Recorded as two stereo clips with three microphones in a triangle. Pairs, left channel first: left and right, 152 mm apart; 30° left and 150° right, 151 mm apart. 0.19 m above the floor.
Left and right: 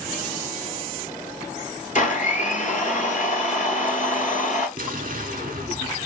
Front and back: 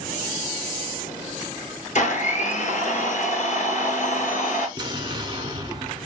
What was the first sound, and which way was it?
A blender, 60° left.